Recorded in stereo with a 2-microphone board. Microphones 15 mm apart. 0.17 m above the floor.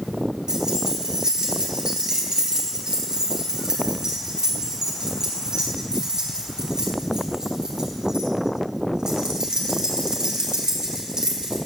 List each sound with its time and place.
0.5 s keys jangling: 50° right (ahead or behind), 1.8 m